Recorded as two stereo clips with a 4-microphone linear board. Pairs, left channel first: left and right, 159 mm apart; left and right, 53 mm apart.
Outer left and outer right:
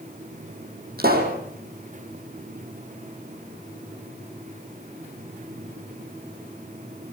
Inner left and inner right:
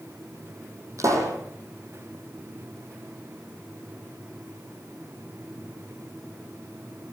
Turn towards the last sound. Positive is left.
turn(degrees=-70)  # may be behind; listen again after turning